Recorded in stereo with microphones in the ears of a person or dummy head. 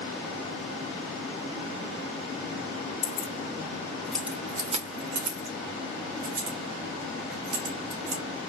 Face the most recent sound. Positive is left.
turn(degrees=-80)